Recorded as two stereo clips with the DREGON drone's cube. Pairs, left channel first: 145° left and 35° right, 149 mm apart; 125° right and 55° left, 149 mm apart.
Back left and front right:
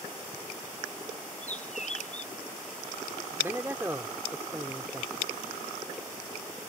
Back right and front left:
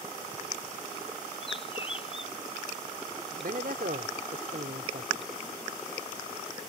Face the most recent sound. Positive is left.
turn(degrees=40)